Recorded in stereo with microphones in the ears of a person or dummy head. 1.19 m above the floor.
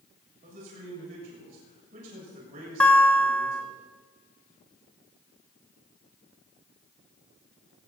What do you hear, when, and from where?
0.4 s a man speaking: 40° right (ahead or behind), 7 m
2.8 s a guitar: 10° left (ahead or behind), 1.3 m